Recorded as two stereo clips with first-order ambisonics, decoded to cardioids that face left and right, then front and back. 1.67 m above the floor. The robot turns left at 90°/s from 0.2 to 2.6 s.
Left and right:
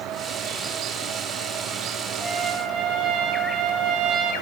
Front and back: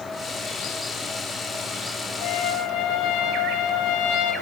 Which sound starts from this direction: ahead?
A trumpet, at 2.2 s.